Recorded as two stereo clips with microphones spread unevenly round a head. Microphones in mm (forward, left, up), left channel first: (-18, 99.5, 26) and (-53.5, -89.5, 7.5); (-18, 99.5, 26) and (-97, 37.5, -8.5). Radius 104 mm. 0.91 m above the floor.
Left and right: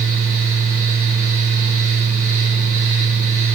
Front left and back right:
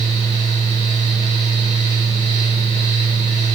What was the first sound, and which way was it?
A fan, 115° right.